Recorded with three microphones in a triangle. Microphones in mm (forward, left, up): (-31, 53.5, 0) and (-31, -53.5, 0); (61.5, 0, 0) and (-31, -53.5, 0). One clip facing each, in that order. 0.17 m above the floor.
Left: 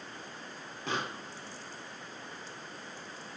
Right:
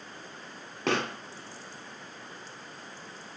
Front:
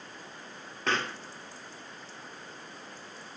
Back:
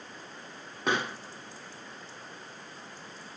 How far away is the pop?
About 1.3 m.